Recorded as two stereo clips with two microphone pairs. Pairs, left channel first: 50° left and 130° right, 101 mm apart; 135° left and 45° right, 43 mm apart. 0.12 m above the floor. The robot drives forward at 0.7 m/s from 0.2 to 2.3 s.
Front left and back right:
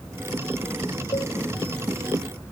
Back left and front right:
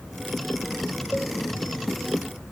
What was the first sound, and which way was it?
A cowbell, 65° left.